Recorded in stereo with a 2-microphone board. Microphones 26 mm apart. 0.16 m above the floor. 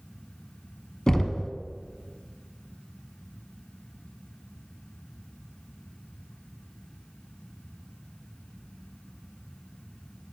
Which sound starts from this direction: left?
Knocking, at 1.1 s.